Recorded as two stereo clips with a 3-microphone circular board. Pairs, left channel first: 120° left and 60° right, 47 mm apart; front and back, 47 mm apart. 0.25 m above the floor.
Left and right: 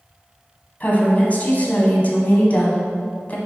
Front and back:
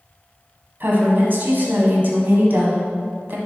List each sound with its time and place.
0.8 s a woman speaking: 160° left, 1.4 m